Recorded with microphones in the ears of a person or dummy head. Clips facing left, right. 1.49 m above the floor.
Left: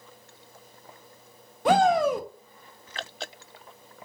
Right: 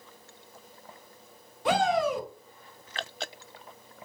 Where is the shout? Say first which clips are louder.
Left 5 dB; 45° left (ahead or behind), 0.5 m.